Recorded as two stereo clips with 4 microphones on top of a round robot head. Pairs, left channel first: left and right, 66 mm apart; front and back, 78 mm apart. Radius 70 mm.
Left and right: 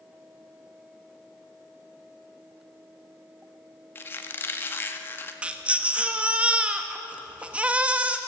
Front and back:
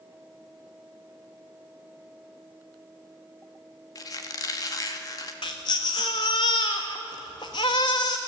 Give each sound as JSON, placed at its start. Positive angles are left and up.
{"t": 4.0, "sound": "a squeak", "azimuth_deg": 35, "distance_m": 1.7}
{"t": 5.4, "sound": "a baby crying", "azimuth_deg": -30, "distance_m": 1.1}